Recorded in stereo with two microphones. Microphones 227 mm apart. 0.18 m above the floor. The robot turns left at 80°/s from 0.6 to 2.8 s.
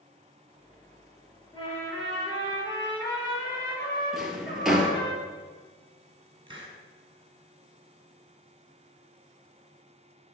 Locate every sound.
1.5 s a trumpet: 165° left, 4 m; by 5.1 s 60° left, 4 m
4.1 s a drawer: centre (ahead or behind), 1.5 m
6.5 s a hiss: 25° right (ahead or behind), 2 m